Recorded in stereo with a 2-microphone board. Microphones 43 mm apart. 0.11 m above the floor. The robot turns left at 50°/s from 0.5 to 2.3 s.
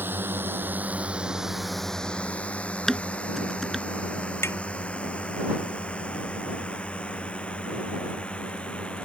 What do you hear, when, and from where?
0.0 s a drone: 50° right (ahead or behind); by 9.1 s 30° left (ahead or behind)
2.9 s dishes clattering: 5° left (ahead or behind)
4.4 s tapping: 75° left (ahead or behind)